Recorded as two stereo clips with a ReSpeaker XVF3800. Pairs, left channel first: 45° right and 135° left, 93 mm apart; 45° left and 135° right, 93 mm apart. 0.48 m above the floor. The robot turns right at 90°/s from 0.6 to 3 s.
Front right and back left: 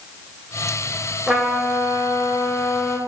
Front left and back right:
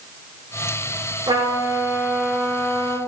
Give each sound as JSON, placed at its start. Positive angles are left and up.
{"t": 1.3, "sound": "a trumpet", "azimuth_deg": -145, "distance_m": 1.7}